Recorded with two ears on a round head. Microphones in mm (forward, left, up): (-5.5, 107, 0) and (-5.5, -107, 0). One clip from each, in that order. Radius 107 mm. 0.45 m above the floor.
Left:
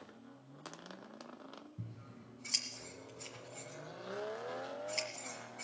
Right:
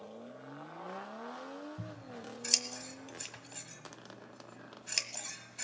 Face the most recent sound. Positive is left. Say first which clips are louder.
# right 9 dB
turn(degrees=-70)  # may be behind; listen again after turning